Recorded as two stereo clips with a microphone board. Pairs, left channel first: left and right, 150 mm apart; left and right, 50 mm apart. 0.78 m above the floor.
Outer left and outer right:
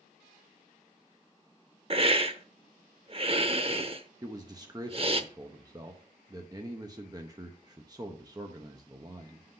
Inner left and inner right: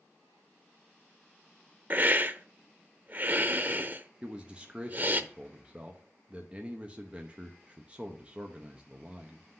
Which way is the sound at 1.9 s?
40° right (ahead or behind).